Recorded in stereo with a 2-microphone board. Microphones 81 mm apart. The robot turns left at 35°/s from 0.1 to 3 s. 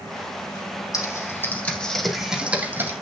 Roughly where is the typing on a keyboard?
Left.